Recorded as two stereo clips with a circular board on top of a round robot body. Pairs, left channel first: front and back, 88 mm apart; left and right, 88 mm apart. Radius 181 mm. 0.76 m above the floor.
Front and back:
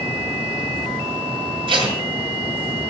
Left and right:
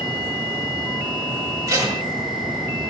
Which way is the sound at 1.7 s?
145° right.